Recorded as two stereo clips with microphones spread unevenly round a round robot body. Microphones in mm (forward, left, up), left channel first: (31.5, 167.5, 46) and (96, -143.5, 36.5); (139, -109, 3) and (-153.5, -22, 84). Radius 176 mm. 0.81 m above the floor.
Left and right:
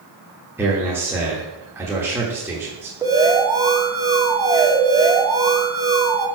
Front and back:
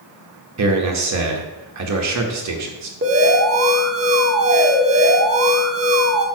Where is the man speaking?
160° right, 1.1 m.